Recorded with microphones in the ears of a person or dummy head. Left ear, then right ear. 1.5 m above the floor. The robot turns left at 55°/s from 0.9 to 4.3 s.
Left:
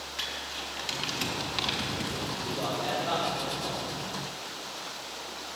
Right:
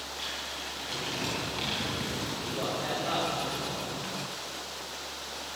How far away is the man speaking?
About 5.5 m.